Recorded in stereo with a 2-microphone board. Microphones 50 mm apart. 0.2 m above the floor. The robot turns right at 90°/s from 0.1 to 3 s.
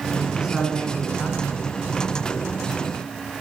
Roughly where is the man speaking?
Ahead right.